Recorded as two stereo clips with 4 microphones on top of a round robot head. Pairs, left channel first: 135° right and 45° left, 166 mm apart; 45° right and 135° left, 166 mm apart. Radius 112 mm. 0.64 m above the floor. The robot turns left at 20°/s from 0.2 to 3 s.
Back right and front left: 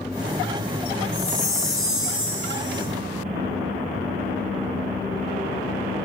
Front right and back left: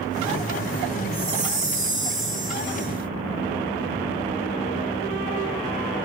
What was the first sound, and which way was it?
A chime, 175° left.